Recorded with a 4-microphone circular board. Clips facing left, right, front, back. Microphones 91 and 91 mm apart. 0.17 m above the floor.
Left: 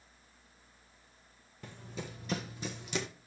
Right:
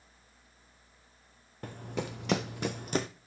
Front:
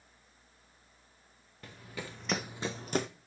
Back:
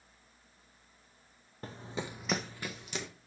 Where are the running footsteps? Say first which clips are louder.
Right 7 dB, back 4 dB; 130° right, 0.9 m; by 3.1 s 40° right, 0.7 m.